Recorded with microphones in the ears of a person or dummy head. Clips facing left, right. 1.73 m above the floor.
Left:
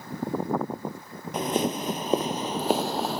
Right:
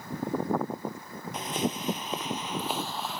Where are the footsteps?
45° left (ahead or behind); by 3.2 s 40° left (ahead or behind).